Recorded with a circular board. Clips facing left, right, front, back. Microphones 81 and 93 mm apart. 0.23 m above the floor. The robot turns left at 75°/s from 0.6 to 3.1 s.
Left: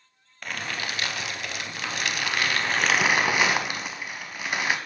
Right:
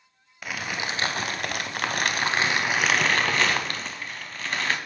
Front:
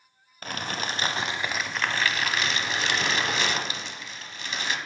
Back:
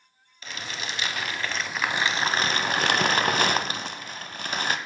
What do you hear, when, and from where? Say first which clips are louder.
0.4 s crumpling: right 1 dB, front 4 dB; 10° right, 0.6 m; by 4.8 s 165° left, 0.6 m